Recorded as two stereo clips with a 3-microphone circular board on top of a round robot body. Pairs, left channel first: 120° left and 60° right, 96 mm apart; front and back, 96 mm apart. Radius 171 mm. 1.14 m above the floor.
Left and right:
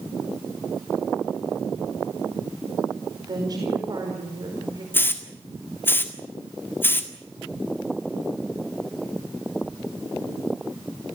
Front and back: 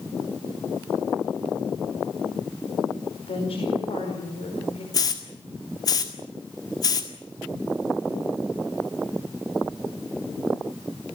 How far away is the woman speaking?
About 5 m.